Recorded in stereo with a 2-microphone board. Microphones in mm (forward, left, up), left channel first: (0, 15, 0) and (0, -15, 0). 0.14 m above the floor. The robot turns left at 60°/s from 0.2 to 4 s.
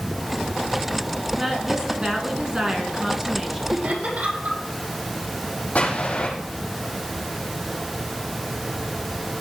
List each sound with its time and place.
1.3 s a woman speaking: 10° right (ahead or behind), 1.7 m
3.7 s laughter: 70° right (ahead or behind), 5 m; by 4.6 s 55° right (ahead or behind), 5 m
5.8 s an explosion: 50° left (ahead or behind), 5.5 m